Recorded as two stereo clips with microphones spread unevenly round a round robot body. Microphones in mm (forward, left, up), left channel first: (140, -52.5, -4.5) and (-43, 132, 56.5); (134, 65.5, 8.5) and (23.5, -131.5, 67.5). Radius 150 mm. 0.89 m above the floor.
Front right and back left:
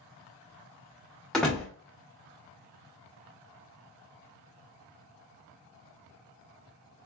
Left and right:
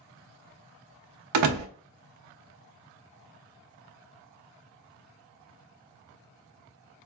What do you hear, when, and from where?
1.3 s a door slam: 130° right, 0.6 m